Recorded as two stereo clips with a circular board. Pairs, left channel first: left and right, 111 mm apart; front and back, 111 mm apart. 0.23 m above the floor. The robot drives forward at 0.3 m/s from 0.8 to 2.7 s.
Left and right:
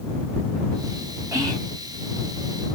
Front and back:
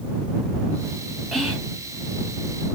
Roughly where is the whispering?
Right.